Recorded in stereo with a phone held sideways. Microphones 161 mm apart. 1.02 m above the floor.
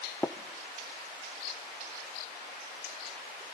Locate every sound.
0.2 s tapping: 10° left (ahead or behind), 0.8 m